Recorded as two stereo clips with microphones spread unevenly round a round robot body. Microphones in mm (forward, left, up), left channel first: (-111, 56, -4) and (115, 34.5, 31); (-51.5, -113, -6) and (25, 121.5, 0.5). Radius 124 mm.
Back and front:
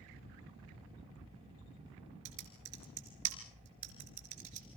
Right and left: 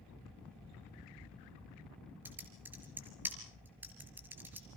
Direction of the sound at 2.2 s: 10° right.